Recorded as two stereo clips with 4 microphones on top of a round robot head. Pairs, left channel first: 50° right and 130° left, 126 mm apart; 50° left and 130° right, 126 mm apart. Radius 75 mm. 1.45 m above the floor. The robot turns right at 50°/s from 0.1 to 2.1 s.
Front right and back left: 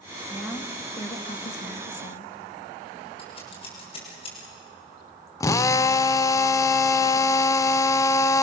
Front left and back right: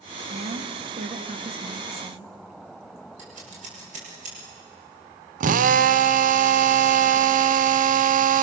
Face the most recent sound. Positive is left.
turn(degrees=-115)